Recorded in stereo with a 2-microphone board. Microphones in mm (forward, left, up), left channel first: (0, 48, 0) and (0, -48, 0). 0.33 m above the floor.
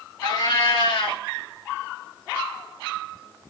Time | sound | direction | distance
0.2 | a cat meowing | 60° left (ahead or behind) | 1.5 m